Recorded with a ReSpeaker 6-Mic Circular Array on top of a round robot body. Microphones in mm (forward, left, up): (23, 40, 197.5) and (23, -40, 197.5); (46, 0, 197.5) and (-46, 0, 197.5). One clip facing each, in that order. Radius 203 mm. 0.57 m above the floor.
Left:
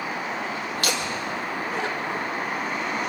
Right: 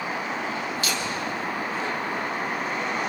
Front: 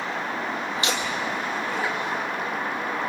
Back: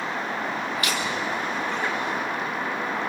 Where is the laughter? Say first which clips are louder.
Left 1 dB, even; 65° left, 3.5 m; by 2.3 s 95° left, 3.5 m.